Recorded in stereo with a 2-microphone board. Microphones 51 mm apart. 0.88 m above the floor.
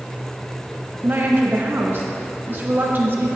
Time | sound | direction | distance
1.0 | a woman speaking | 40° right (ahead or behind) | 0.9 m